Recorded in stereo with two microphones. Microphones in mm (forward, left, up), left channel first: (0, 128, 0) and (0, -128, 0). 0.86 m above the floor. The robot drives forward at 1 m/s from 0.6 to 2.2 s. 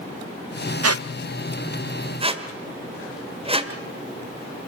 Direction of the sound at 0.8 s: 75° right (ahead or behind).